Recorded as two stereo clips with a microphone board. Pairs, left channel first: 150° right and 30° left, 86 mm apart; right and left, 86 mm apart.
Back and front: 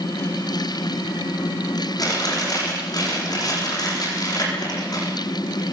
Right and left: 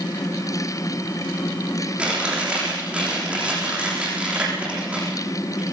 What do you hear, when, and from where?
2.0 s chewing: 165° left, 9 m